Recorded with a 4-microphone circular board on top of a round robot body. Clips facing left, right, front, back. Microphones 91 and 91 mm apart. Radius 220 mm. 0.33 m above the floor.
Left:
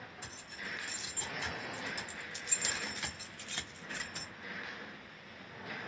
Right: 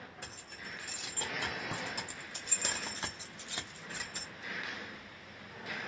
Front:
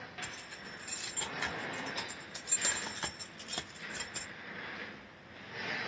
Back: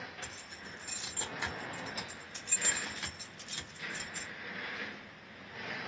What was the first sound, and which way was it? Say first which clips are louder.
Keys jangling: left 1 dB, front 1 dB; 125° right.